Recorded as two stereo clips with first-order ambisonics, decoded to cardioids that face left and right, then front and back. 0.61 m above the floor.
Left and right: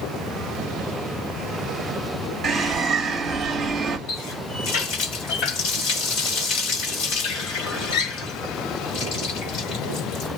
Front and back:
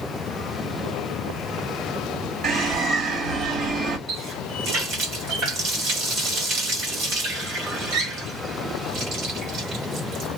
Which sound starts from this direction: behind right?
A bird, at 2.4 s.